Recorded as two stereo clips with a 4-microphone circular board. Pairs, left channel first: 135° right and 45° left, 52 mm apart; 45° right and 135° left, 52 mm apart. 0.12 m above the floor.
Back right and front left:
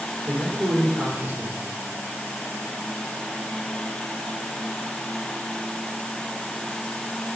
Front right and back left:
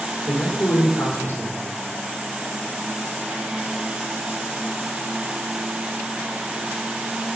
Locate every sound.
0.3 s a man speaking: 5° left, 4 m